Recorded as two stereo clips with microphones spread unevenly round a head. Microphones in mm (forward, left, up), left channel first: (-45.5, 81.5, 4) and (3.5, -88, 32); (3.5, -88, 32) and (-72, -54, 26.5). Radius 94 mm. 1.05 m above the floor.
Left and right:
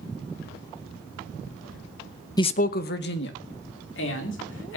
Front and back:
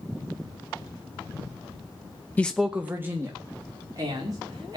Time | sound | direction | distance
2.4 | a man speaking | 45° left | 0.5 m